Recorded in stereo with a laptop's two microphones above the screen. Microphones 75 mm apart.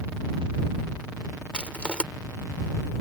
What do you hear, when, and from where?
1.5 s crushing: 15° left (ahead or behind)